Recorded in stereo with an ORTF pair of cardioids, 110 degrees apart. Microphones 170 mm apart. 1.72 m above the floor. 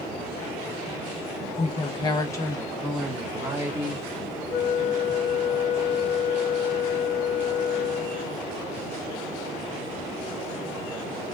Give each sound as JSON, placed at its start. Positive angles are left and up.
{"t": 1.6, "sound": "a woman speaking", "azimuth_deg": 45, "distance_m": 1.4}
{"t": 4.5, "sound": "a flute", "azimuth_deg": 45, "distance_m": 0.8}